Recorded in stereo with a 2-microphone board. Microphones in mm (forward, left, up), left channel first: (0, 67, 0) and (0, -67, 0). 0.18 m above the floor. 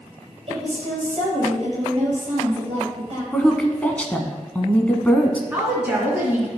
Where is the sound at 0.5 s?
45° right (ahead or behind), 4.5 m.